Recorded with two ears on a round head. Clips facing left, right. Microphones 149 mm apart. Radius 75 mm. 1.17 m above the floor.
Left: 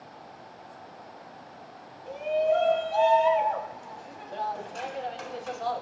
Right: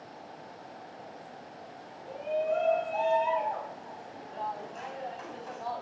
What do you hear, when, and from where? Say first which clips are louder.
2.1 s a shout: left 5 dB; 90° left, 9.5 m; by 5.8 s 85° left, 5.5 m